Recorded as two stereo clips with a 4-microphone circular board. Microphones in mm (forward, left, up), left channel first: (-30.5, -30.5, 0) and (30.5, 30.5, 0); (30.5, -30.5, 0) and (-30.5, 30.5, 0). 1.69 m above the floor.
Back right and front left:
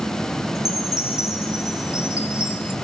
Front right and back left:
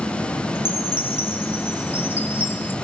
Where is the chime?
95° right, 0.9 m.